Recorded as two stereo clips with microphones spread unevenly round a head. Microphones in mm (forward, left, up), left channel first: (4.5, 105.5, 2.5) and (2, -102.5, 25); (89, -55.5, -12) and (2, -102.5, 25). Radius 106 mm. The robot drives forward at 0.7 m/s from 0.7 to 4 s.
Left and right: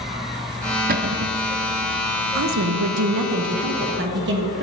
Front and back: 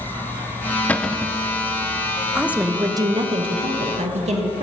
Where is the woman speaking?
60° right, 0.9 m; by 4.6 s 130° right, 1.1 m.